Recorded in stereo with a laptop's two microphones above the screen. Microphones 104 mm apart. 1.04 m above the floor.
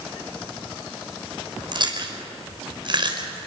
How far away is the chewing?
About 3.5 m.